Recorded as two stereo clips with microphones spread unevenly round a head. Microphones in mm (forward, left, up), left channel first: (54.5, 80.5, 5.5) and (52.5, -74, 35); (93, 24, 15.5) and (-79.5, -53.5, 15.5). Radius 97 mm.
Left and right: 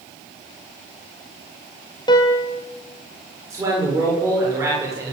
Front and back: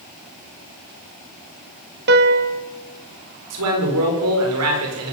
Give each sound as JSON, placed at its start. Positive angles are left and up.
{"t": 2.1, "sound": "a piano", "azimuth_deg": 160, "distance_m": 1.5}
{"t": 3.5, "sound": "a man speaking", "azimuth_deg": -165, "distance_m": 7.5}